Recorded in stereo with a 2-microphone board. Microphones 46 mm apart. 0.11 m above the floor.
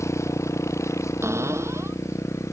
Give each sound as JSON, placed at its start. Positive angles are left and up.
{"t": 0.0, "sound": "a motorcycle", "side_deg": 85}
{"t": 1.2, "sound": "a cupboard door", "side_deg": -70}